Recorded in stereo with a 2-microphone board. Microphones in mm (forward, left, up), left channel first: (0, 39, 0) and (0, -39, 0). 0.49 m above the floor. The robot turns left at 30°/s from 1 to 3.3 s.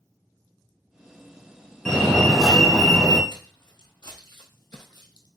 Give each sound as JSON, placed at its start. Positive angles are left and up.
{"t": 1.9, "sound": "a fire alarm", "azimuth_deg": 10, "distance_m": 2.0}
{"t": 3.3, "sound": "footsteps", "side_deg": 70, "distance_m": 1.9}